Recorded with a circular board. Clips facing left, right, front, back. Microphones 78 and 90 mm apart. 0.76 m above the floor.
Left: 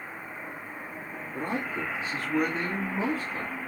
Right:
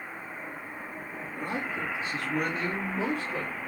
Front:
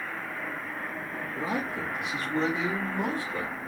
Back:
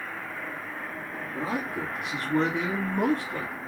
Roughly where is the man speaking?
Behind left.